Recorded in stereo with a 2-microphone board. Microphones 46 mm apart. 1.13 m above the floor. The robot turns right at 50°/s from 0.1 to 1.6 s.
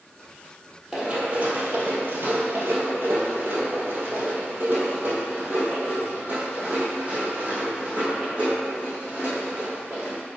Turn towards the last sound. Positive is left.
turn(degrees=-20)  # may be behind; listen again after turning